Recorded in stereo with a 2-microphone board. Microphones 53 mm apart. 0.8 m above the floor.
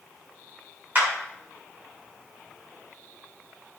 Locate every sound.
0.9 s a clap: 40° right (ahead or behind), 6 m